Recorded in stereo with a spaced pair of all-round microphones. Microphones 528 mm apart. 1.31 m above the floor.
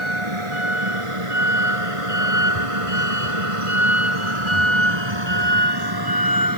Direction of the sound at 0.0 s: 65° right (ahead or behind).